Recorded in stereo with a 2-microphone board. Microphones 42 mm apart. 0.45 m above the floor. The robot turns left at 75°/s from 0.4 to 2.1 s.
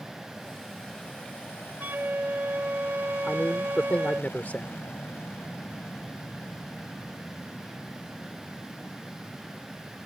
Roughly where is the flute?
Right.